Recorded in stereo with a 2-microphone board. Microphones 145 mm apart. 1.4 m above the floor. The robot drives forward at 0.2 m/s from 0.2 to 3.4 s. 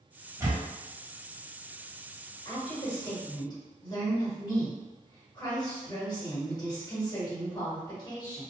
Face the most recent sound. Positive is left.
turn(degrees=30)  # may be behind; listen again after turning